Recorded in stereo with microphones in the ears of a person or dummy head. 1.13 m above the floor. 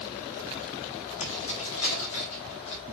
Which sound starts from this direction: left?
Keys jangling, at 1.2 s.